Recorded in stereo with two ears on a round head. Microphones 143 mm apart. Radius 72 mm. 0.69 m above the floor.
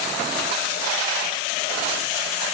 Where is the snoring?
I don't hear snoring.